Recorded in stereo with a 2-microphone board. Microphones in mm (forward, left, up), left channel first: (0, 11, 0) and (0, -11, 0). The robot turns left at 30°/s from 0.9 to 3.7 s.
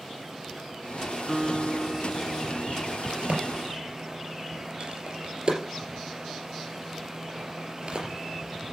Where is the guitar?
175° right, 0.7 m; by 3.0 s 130° left, 0.7 m.